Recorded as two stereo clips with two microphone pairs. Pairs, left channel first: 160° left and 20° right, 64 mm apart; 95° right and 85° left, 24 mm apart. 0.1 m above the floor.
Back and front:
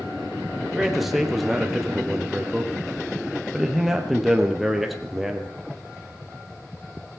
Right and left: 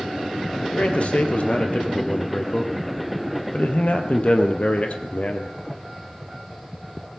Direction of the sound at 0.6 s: 105° right.